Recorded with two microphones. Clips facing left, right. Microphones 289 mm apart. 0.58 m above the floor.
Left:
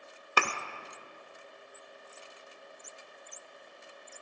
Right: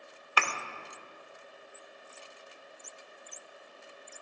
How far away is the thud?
About 0.6 m.